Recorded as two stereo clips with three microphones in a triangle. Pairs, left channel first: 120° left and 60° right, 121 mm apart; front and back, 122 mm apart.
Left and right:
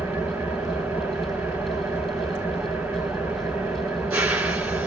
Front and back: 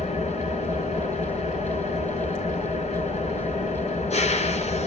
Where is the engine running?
20° left, 2 m.